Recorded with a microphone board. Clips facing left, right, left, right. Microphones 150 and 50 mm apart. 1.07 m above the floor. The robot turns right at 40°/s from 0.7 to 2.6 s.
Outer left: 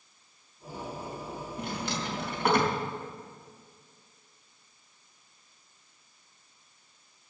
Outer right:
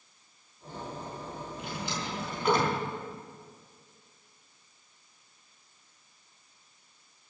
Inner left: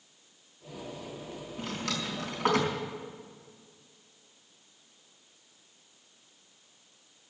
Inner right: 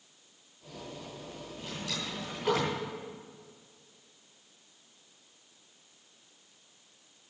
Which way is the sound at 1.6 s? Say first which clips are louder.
Outer left 3 dB, inner left 4 dB; 75° left (ahead or behind).